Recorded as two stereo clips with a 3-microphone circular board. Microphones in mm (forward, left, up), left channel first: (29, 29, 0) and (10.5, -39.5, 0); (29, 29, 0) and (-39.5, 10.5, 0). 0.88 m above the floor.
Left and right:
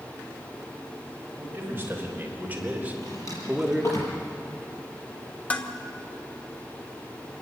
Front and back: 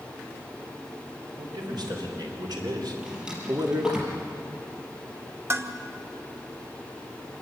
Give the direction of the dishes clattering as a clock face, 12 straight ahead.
7 o'clock.